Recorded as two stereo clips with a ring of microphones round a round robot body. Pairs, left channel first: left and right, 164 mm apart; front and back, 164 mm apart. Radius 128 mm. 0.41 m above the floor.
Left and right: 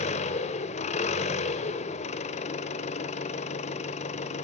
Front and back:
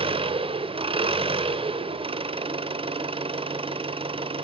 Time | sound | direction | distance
0.0 | an engine running | 130° left | 1.7 m